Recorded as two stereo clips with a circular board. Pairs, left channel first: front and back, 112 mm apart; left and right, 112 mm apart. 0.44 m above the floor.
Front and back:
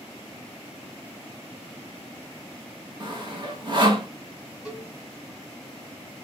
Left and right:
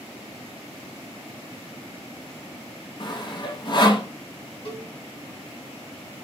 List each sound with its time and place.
3.0 s sawing: 135° left, 0.8 m
4.7 s a cowbell: 95° left, 1.3 m